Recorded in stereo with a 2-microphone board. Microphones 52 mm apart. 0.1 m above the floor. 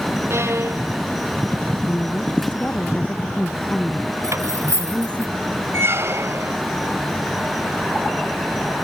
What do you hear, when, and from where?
0.3 s a violin: 60° right (ahead or behind)
1.9 s a woman speaking: 25° left (ahead or behind)
4.2 s cutlery clinking: 70° right (ahead or behind)
5.7 s a squeak: 55° right (ahead or behind)